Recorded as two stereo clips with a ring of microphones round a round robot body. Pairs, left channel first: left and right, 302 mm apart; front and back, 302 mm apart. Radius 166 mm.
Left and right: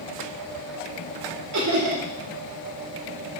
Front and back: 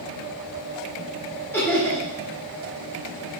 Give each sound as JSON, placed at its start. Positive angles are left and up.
{"t": 1.5, "sound": "laughter", "azimuth_deg": -80, "distance_m": 2.0}